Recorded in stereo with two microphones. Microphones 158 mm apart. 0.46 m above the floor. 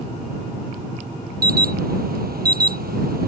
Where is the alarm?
75° right (ahead or behind).